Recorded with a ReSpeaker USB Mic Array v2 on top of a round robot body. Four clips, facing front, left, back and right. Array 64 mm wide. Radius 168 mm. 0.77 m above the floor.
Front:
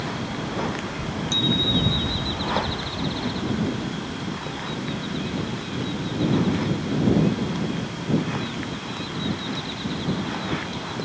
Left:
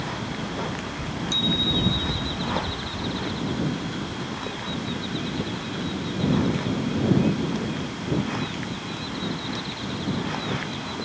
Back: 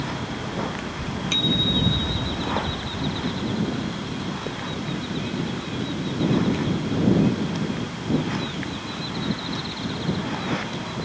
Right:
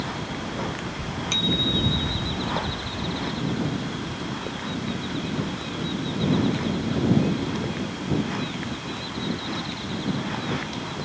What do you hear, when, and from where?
1.3 s a bicycle bell: 155° right